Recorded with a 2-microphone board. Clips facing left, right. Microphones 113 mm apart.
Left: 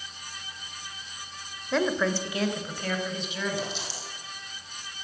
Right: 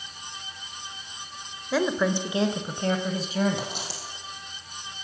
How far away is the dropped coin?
About 5 m.